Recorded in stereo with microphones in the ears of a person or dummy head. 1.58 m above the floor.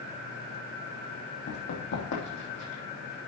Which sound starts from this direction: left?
Running footsteps, at 1.5 s.